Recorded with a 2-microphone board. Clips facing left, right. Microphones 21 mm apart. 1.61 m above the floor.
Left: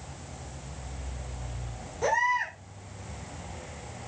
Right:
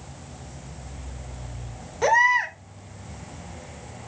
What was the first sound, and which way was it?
A baby crying, 40° right (ahead or behind).